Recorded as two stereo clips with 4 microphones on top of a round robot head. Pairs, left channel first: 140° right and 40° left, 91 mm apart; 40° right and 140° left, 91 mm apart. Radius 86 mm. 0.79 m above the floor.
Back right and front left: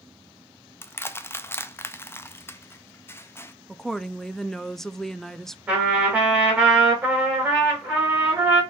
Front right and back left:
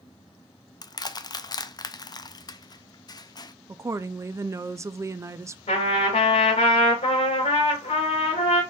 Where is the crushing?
80° right, 0.5 m.